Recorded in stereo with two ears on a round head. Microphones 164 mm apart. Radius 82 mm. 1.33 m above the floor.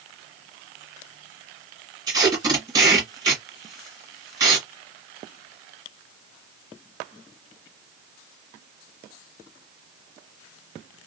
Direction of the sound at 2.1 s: 20° right (ahead or behind).